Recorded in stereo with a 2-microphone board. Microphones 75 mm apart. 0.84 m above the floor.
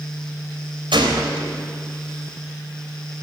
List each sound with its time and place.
0.9 s a gunshot: 80° right, 3.5 m